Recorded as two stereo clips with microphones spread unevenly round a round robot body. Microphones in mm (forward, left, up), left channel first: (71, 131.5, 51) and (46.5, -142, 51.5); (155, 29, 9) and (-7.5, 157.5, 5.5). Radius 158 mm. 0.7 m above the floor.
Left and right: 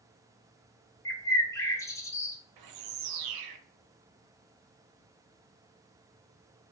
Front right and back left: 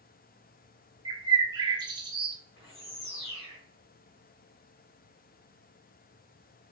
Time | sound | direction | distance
1.1 | a bird | 145° left | 0.7 m
2.6 | a bird | 90° right | 0.6 m